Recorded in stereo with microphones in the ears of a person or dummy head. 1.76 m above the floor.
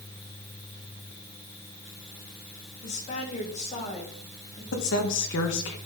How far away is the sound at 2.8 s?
About 2 m.